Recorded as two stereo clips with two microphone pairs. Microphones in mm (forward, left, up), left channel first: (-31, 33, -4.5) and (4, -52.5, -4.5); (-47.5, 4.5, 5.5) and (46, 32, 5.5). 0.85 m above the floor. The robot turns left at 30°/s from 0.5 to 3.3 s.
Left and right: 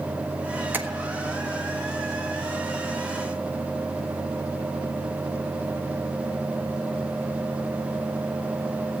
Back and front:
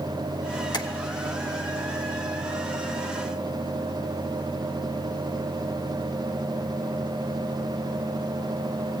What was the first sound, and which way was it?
Tapping, 135° right.